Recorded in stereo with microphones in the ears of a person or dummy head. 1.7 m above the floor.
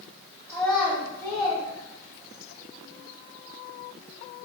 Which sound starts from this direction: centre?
A child speaking, at 0.5 s.